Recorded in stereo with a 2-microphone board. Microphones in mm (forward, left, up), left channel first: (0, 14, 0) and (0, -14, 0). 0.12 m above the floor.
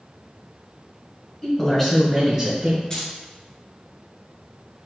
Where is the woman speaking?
25° left (ahead or behind), 1.6 m; by 2.8 s 25° right (ahead or behind), 1.6 m.